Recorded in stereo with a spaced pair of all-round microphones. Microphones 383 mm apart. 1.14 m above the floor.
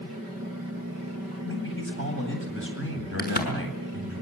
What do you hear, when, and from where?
1.4 s a man speaking: 35° left (ahead or behind), 8.5 m
3.2 s a crack: 25° left (ahead or behind), 6.5 m